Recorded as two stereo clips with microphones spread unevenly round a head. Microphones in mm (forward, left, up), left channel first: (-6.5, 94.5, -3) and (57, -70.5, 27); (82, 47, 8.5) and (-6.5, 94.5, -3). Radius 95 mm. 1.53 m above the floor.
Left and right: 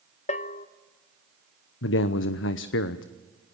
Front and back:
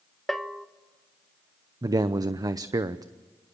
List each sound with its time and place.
0.3 s a bell: 55° left, 1.0 m
1.8 s a man speaking: 95° left, 0.8 m